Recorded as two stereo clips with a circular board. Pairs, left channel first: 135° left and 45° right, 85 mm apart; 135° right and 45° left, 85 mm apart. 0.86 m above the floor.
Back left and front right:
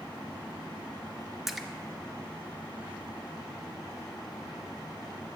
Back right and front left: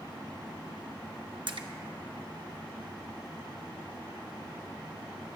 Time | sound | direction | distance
1.5 | a splash | 45° left | 0.6 m